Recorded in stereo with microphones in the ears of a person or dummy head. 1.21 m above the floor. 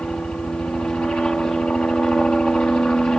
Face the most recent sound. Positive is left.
turn(degrees=5)  # may be behind; listen again after turning